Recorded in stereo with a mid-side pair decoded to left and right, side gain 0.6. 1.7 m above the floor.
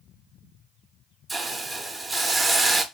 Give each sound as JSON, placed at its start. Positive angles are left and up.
{"t": 1.3, "sound": "a hiss", "azimuth_deg": -10, "distance_m": 0.7}